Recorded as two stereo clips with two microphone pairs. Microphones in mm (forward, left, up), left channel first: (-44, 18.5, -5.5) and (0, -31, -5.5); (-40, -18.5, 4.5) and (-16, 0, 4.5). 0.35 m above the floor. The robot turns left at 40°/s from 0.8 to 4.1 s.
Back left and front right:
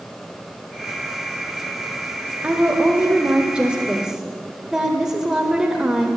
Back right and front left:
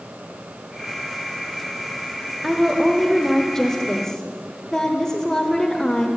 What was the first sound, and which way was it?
A woman speaking, 50° right.